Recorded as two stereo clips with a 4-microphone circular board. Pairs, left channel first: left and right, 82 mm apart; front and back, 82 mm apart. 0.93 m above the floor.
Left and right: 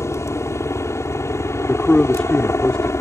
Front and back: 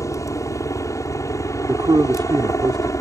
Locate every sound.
0.0 s a helicopter: 40° left
1.7 s a man speaking: 170° left